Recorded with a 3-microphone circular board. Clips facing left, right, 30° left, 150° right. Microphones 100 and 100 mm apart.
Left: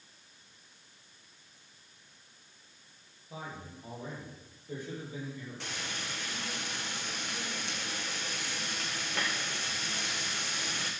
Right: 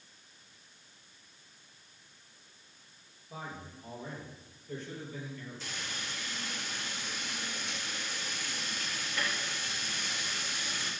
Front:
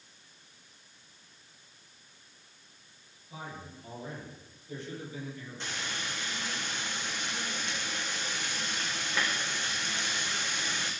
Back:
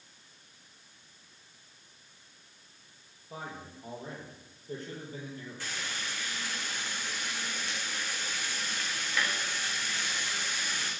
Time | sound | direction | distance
3.3 | a man speaking | 170° left | 6.5 m
5.6 | frying | 95° left | 3.5 m